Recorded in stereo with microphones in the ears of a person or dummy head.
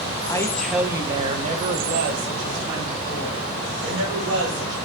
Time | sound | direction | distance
0.3 | a woman speaking | 20° left (ahead or behind) | 0.5 m